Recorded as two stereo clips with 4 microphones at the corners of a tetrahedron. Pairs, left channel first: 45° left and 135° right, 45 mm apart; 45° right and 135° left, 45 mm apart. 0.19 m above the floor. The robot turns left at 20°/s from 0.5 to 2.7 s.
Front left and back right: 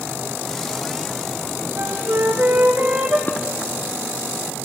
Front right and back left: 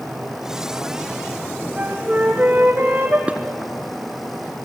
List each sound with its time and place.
1.8 s a flute: 160° right, 2.5 m; by 3.2 s straight behind, 2.5 m
3.3 s dishes clattering: 80° left, 1.5 m